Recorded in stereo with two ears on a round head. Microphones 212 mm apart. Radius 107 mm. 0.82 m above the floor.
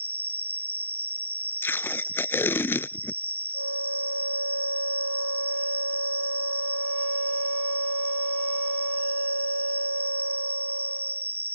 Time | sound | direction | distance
0.0 | an insect | 10° right (ahead or behind) | ?
1.6 | tape being pulled | 10° left (ahead or behind) | ?
3.5 | a flute | 85° right | ?